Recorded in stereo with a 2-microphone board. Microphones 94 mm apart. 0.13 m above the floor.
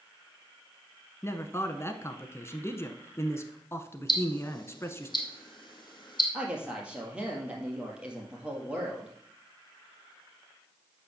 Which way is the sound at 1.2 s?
30° left (ahead or behind).